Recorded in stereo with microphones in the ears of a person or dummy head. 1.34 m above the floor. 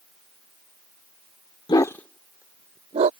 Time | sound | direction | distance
1.7 | a dog barking | 25° left (ahead or behind) | ?